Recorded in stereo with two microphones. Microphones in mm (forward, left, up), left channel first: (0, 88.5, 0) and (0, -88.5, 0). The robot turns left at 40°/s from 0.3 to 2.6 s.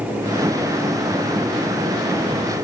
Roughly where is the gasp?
No gasp in this recording.